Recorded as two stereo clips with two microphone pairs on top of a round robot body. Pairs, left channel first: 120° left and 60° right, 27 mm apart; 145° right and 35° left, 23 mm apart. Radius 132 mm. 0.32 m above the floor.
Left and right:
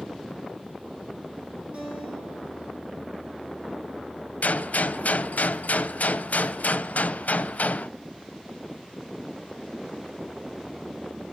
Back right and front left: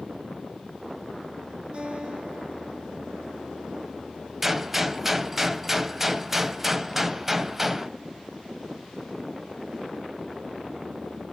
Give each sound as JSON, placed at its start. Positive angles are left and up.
{"t": 1.7, "sound": "a guitar", "azimuth_deg": -15, "distance_m": 9.0}
{"t": 4.4, "sound": "a gunshot", "azimuth_deg": 105, "distance_m": 0.7}